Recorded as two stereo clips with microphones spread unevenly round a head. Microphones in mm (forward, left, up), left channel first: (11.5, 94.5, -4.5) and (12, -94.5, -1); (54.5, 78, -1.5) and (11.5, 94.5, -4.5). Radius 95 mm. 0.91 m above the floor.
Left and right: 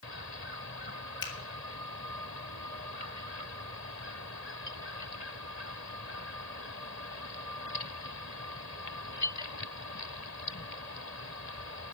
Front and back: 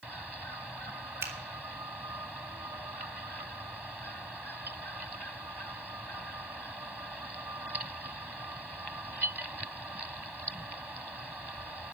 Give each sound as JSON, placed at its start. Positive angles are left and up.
{"t": 1.2, "sound": "a finger snap", "azimuth_deg": 155, "distance_m": 1.8}